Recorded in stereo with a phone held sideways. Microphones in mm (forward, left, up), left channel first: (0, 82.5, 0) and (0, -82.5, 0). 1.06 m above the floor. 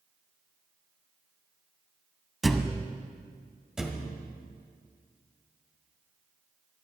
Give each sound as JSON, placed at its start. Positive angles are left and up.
{"t": 2.4, "sound": "a thud", "side_deg": 0, "distance_m": 0.9}
{"t": 3.8, "sound": "a thud", "side_deg": -5, "distance_m": 1.6}